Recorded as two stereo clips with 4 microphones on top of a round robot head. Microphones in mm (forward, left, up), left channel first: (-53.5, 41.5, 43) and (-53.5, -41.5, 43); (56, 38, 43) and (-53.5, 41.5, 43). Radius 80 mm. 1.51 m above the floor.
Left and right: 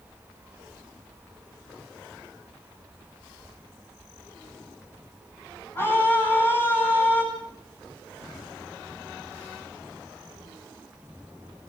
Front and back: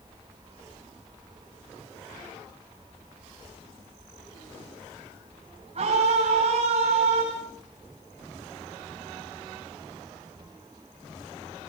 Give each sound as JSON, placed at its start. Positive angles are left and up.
{"t": 5.8, "sound": "a scream", "azimuth_deg": 150, "distance_m": 10.0}